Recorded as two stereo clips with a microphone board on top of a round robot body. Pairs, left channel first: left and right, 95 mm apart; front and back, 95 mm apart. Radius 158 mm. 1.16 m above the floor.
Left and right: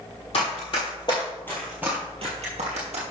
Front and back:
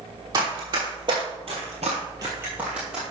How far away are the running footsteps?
About 1.9 m.